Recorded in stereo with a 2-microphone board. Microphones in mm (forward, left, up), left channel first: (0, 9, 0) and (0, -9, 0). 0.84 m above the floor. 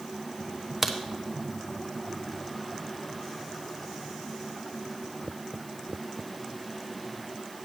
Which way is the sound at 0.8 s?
15° right (ahead or behind).